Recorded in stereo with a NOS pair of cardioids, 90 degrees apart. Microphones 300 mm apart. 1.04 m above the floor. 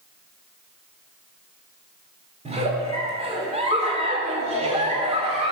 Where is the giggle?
20° right, 2.5 m.